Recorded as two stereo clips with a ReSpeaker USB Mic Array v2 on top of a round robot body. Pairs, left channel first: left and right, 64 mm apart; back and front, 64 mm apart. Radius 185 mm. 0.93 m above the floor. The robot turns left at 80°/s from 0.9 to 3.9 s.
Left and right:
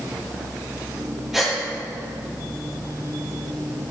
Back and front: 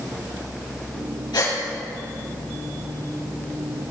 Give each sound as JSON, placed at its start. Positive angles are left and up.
{"t": 1.3, "sound": "a gasp", "azimuth_deg": -175, "distance_m": 5.5}